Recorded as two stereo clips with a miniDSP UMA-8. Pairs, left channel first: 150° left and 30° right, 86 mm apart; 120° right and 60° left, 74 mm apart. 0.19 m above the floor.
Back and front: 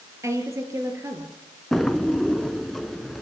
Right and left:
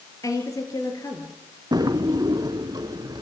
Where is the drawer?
65° left, 0.9 m.